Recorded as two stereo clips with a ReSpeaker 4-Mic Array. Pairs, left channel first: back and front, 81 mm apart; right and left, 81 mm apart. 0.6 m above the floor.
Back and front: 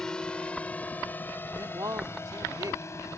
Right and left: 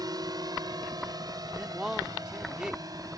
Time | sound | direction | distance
0.0 | a drone | 100° left | ?
1.5 | a man speaking | 15° left | ?